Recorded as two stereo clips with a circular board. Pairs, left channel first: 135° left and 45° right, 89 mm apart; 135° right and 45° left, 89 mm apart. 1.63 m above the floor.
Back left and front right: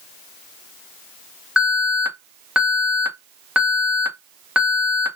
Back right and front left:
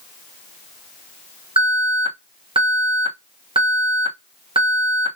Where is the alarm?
40° left, 1.6 m.